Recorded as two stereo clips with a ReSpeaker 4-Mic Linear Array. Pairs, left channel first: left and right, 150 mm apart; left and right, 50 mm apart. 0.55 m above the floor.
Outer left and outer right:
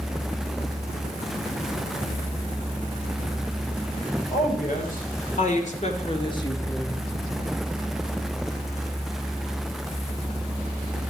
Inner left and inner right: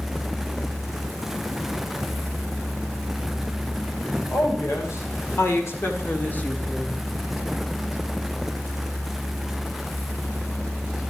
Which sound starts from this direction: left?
A woman speaking, at 4.3 s.